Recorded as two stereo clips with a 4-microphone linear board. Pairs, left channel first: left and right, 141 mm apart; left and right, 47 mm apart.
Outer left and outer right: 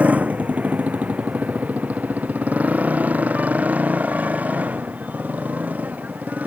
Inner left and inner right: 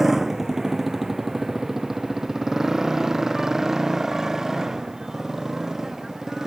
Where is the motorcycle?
10° right (ahead or behind).